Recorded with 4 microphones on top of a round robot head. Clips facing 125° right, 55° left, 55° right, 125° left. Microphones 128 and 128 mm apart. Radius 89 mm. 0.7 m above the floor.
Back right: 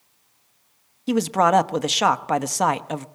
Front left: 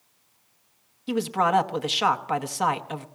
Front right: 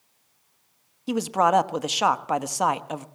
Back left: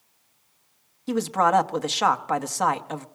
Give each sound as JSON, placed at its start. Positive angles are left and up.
{"t": 1.1, "sound": "a man speaking", "azimuth_deg": -125, "distance_m": 1.0}